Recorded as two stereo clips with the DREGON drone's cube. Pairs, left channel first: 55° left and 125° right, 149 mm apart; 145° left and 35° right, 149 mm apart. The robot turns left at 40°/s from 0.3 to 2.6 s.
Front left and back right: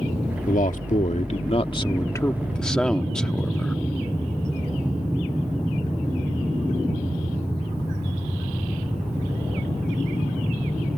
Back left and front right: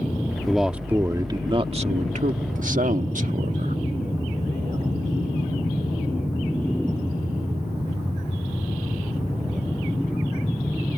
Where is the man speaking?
55° left; by 3.8 s 30° right.